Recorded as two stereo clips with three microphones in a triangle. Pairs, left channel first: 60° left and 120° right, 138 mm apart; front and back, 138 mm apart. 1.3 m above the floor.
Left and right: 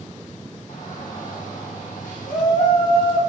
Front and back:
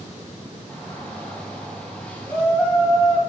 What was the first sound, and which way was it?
A shout, 80° left.